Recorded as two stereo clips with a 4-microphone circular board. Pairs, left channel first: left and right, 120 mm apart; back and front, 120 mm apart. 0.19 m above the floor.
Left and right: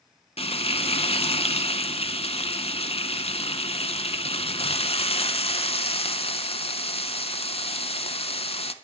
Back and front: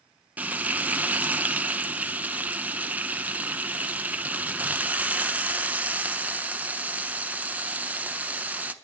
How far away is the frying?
About 0.6 m.